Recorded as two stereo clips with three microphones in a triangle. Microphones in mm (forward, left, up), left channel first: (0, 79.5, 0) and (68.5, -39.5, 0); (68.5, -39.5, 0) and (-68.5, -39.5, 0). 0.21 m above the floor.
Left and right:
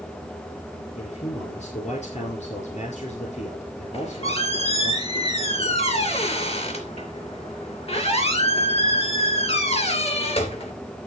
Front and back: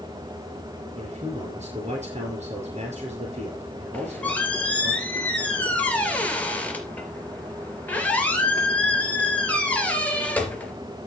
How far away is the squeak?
About 3 m.